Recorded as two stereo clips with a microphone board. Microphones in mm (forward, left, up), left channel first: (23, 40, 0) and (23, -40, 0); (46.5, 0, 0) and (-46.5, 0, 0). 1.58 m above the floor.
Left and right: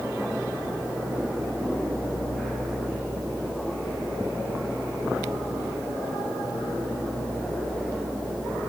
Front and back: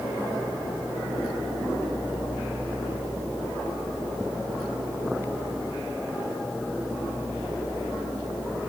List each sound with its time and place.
Only background noise.